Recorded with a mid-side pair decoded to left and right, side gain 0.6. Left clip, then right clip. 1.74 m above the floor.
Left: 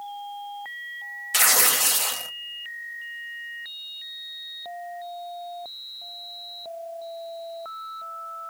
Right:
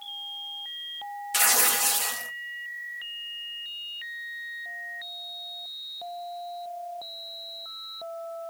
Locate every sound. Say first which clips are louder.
1.3 s tearing paper: left 3 dB; 20° left, 0.8 m